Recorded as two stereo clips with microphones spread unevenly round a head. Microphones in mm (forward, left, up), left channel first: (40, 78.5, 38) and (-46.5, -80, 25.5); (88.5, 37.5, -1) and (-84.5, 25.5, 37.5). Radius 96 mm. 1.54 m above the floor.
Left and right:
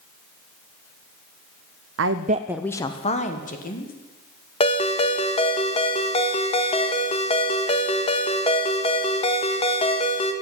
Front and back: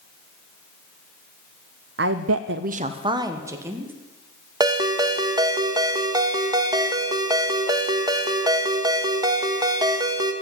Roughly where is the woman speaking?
Behind right.